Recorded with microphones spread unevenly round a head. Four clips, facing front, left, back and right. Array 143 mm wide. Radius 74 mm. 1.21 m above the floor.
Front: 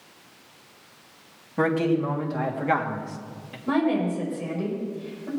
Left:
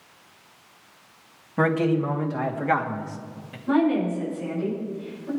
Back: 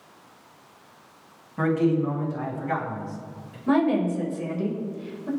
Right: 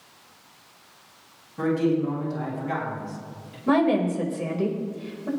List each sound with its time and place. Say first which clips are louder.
1.6 s a man speaking: left 1 dB, even; 55° left, 3 m; by 3.6 s 30° left, 2.5 m
3.7 s a woman speaking: right 1 dB, back 2 dB; 95° right, 4.5 m